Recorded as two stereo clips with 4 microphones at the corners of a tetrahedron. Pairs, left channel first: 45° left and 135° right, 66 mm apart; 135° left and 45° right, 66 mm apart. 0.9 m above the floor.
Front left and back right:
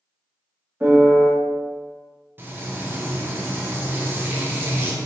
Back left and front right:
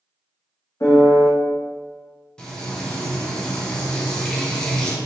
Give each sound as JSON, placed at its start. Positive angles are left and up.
{"t": 0.8, "sound": "a piano", "azimuth_deg": 165, "distance_m": 0.8}
{"t": 2.4, "sound": "frying", "azimuth_deg": -155, "distance_m": 0.6}